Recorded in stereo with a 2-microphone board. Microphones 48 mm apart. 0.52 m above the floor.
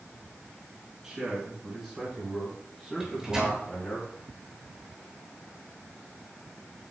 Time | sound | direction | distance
1.0 | a man speaking | 10° right (ahead or behind) | 4.5 m
3.0 | a microwave | 15° right (ahead or behind) | 5 m